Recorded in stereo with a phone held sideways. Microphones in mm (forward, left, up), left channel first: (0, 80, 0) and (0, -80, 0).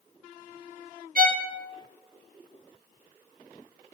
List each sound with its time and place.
1.1 s a violin: 60° right (ahead or behind), 0.7 m